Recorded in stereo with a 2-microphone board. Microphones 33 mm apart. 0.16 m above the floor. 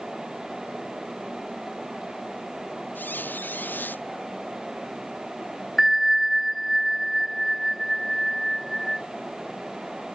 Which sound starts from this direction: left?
A squeak, at 3.0 s.